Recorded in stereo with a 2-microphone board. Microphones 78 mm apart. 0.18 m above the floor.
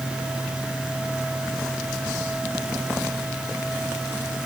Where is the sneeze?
No sneeze in this recording.